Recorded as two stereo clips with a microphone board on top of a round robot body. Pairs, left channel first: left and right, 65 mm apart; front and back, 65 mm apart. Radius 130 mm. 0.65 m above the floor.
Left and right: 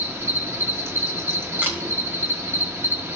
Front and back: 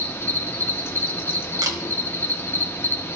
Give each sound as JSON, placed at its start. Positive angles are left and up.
{"t": 0.0, "sound": "an insect", "azimuth_deg": -45, "distance_m": 0.9}
{"t": 1.6, "sound": "a camera shutter", "azimuth_deg": -155, "distance_m": 1.1}